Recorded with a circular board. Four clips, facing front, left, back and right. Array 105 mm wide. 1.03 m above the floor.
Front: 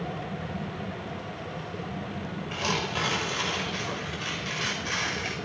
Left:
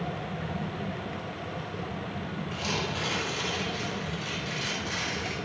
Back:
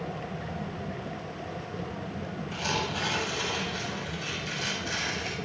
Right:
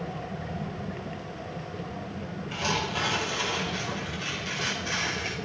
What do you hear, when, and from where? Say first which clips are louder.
2.5 s tearing paper: right 4 dB, front 2 dB; 20° right, 5.5 m